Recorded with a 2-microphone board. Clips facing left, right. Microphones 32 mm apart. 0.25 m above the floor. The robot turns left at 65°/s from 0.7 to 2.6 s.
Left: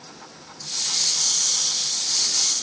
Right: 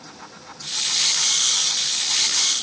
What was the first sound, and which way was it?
Only background noise.